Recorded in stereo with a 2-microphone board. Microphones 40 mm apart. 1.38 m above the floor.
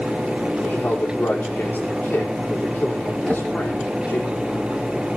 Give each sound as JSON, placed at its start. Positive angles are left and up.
{"t": 0.6, "sound": "a man speaking", "side_deg": 55, "distance_m": 5.0}
{"t": 3.3, "sound": "a drawer", "side_deg": 0, "distance_m": 4.5}